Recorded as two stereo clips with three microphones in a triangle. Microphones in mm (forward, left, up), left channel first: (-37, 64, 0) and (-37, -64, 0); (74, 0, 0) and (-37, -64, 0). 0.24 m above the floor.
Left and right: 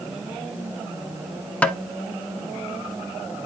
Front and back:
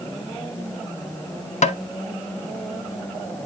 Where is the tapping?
10° left, 0.9 m.